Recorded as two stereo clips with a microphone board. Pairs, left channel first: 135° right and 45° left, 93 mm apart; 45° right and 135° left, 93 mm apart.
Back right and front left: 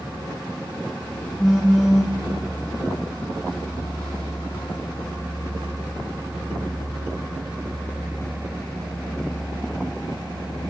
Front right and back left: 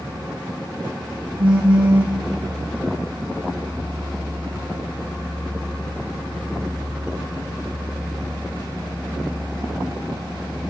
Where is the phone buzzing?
135° left, 3.5 m.